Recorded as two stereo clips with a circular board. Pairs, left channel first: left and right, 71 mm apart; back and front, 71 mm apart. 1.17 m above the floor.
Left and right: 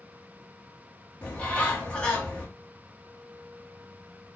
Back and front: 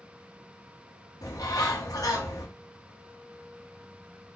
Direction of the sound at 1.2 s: 160° left.